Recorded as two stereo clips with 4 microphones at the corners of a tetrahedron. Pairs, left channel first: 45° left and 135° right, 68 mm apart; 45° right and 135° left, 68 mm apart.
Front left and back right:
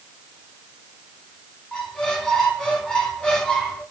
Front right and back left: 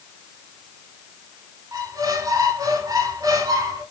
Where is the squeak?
125° left, 0.9 m.